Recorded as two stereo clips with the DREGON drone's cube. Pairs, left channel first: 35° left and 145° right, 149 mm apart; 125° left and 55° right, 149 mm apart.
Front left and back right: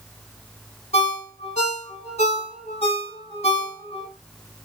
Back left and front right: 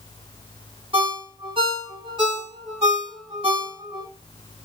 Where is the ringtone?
5° right, 1.7 m.